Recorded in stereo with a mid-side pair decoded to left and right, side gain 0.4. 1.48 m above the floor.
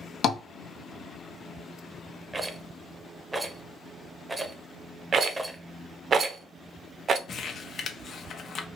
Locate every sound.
0.2 s tapping: 65° left, 0.5 m
2.3 s a rattle: 25° right, 0.6 m
5.1 s a rattle: 55° right, 0.5 m
7.3 s crumpling: 60° left, 0.6 m